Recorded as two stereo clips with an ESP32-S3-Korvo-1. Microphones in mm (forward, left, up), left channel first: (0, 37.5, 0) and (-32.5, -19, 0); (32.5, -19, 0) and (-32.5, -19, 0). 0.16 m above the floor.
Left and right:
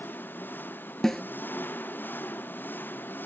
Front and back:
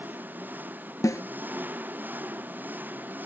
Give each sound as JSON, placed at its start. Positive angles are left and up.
{"t": 0.0, "sound": "an engine running", "azimuth_deg": 120}
{"t": 1.0, "sound": "a snare drum", "azimuth_deg": -25}